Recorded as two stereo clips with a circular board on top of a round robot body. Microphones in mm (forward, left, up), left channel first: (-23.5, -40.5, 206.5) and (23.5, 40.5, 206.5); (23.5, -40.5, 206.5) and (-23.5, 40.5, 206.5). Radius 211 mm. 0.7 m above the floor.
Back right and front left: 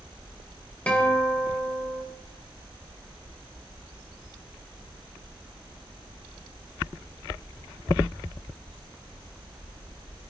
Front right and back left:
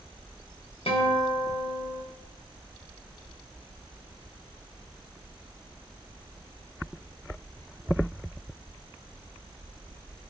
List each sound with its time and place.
0.9 s a guitar: 45° right, 3 m